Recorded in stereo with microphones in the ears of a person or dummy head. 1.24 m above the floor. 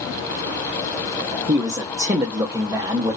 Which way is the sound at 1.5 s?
15° right (ahead or behind).